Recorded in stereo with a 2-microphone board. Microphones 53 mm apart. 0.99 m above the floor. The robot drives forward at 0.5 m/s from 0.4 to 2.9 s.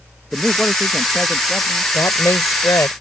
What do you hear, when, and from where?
0.3 s a man speaking: 5° left (ahead or behind)
1.9 s a woman speaking: 75° left (ahead or behind); by 2.9 s 80° left